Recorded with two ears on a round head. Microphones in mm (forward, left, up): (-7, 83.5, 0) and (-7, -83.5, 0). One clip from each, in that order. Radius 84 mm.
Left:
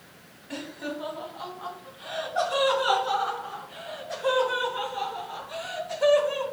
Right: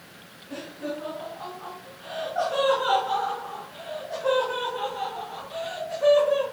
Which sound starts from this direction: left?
Laughter, at 0.5 s.